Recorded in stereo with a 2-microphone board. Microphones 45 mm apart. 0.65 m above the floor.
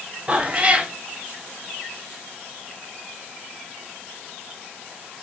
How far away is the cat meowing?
About 0.6 m.